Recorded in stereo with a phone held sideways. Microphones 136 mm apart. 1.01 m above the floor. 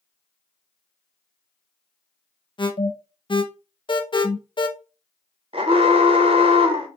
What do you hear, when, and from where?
2.6 s an alarm: 40° left (ahead or behind), 0.6 m
5.5 s an alarm: 40° right (ahead or behind), 0.7 m